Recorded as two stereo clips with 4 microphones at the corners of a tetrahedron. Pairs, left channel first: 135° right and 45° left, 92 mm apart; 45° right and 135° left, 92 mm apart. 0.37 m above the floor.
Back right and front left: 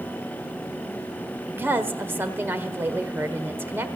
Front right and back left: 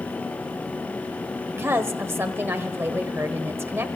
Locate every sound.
1.5 s a woman speaking: 95° left, 1.3 m